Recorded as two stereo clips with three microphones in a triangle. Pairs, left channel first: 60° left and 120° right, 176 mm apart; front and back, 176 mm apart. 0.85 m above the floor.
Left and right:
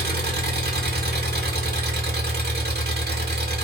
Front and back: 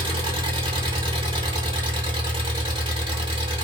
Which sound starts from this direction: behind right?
An engine running, at 0.0 s.